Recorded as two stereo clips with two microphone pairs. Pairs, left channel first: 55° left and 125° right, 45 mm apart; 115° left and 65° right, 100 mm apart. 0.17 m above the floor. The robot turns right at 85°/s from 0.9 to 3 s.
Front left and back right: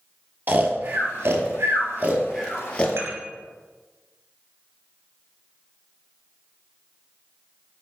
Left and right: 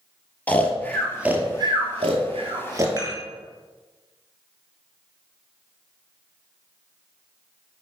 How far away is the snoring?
About 1.2 m.